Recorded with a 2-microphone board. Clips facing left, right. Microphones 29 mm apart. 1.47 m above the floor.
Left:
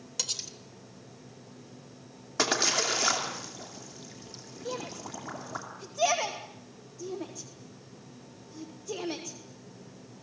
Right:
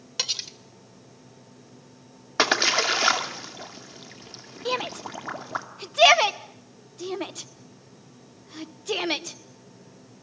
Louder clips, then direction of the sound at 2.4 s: Right 6 dB; 35° right (ahead or behind).